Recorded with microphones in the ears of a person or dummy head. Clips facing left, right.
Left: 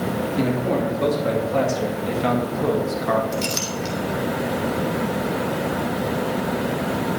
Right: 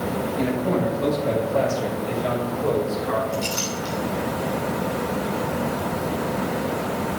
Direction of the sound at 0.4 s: 70° left (ahead or behind).